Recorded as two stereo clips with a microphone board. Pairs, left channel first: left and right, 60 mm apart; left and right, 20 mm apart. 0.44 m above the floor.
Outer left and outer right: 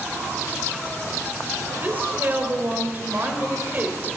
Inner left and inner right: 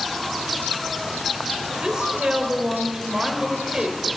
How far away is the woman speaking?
About 1.5 m.